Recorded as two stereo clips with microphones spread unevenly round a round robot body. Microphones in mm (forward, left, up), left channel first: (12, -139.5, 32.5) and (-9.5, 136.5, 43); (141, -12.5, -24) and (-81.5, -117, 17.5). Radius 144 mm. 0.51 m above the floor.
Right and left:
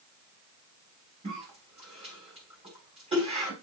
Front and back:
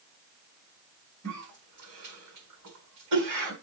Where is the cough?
165° left, 4 m.